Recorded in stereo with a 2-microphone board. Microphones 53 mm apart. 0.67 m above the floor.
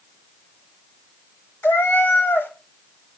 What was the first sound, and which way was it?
A cat meowing, 45° left (ahead or behind).